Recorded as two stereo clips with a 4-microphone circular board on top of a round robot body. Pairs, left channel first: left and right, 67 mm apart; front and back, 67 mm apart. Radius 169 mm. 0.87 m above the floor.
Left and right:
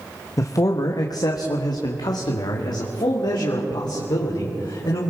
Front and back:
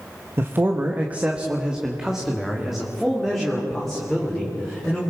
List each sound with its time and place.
0.4 s a man speaking: 125° left, 1.3 m; by 5.1 s 85° left, 4 m